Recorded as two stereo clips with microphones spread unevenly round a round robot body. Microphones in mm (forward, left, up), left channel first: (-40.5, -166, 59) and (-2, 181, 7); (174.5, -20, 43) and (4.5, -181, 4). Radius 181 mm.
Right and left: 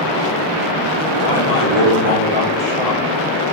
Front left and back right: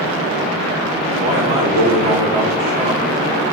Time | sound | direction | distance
1.2 | a man speaking | 130° right | 3 m